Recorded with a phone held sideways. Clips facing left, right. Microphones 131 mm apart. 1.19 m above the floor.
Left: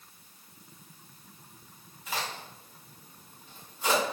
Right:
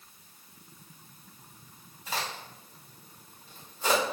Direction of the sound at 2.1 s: 35° right (ahead or behind).